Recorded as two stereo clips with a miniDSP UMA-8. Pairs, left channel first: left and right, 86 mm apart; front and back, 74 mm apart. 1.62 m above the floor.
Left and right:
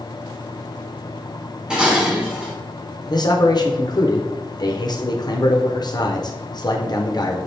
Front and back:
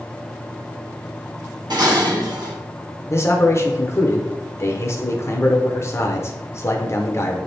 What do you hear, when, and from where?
1.7 s dishes clattering: 170° right, 1.7 m
3.1 s a man speaking: 50° left, 0.9 m